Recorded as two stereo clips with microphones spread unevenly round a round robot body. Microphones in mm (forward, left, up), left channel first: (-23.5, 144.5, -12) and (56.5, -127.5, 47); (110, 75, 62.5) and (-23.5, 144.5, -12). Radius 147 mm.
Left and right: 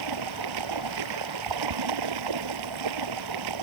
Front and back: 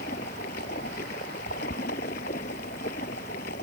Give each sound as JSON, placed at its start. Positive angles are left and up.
{"t": 0.0, "sound": "running water", "azimuth_deg": -85}